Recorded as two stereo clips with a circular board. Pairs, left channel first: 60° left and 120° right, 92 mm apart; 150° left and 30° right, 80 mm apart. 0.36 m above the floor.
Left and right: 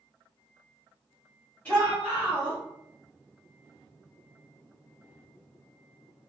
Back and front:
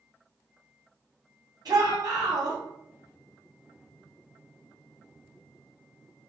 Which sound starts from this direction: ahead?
A shout, at 1.6 s.